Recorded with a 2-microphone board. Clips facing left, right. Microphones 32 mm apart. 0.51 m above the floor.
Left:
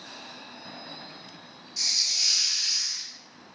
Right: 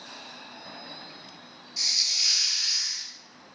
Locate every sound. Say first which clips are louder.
1.8 s a hiss: right 1 dB; 10° right (ahead or behind), 1.4 m